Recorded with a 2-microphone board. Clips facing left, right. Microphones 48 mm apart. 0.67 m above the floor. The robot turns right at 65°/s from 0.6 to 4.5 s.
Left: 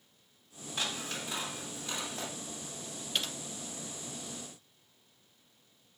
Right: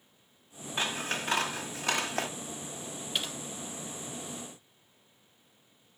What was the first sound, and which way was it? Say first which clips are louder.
Scissors: right 5 dB; 155° right.